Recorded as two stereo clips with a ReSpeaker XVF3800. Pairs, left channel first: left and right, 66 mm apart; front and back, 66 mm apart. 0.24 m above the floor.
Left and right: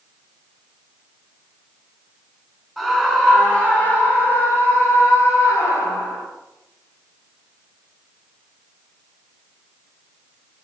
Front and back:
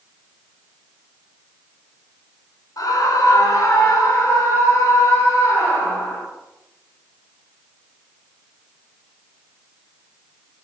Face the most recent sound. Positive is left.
turn(degrees=50)